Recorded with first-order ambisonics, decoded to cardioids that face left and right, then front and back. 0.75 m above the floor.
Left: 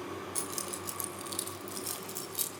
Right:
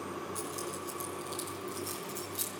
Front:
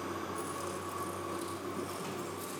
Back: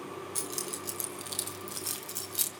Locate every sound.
0.3 s keys jangling: 150° left, 4 m; by 2.5 s 170° left, 2.5 m